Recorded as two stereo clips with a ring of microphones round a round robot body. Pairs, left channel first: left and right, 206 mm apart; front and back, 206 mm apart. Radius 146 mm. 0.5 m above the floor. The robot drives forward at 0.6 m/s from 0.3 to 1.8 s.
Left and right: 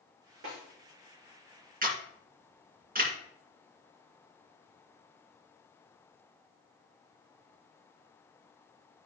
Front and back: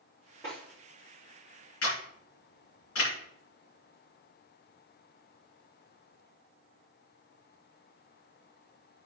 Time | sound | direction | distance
0.4 | a snare drum | 85° right | 4.5 m
1.8 | a camera shutter | 45° right | 2 m